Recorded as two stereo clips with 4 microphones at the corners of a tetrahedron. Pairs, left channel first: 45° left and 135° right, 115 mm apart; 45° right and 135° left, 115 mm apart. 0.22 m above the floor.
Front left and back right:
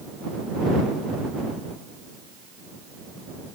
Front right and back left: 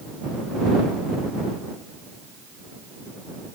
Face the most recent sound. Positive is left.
No sound to turn to.